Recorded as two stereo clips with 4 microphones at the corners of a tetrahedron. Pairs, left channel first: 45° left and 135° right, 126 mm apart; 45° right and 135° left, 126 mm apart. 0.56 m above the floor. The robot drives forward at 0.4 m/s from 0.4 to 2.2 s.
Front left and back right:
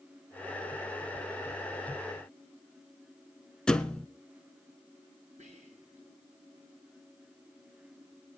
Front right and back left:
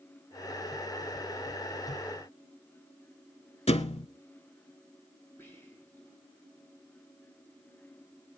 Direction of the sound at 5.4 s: 115° right.